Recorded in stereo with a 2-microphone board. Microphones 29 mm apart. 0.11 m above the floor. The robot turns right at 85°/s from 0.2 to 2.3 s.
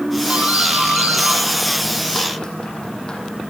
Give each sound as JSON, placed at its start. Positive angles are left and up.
{"t": 0.3, "sound": "a doorbell", "side_deg": -40, "distance_m": 7.0}